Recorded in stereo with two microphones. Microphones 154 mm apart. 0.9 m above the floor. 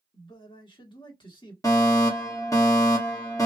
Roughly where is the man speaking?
Left.